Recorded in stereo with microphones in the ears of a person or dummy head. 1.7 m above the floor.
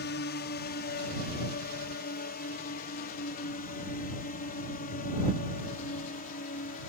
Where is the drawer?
No drawer in this recording.